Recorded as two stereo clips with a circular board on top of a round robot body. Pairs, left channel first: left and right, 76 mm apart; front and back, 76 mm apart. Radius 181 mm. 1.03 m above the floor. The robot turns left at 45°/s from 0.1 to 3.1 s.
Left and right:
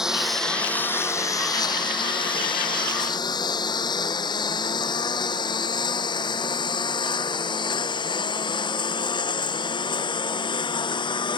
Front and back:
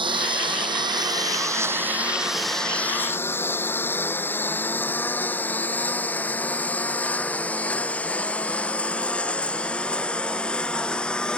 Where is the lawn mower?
175° right; by 11.4 s 80° left.